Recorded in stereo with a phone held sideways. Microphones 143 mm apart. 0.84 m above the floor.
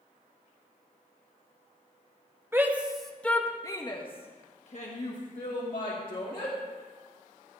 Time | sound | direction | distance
2.5 | a shout | 15° right (ahead or behind) | 1.1 m